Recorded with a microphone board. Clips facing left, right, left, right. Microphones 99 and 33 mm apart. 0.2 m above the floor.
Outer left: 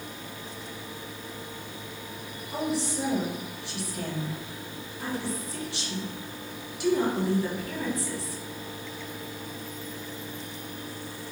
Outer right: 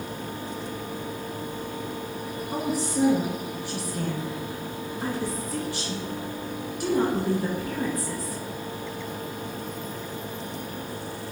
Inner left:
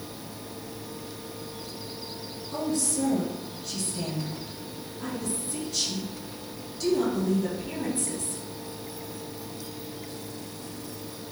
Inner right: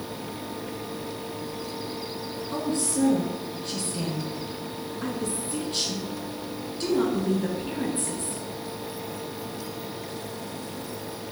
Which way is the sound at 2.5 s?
45° right (ahead or behind).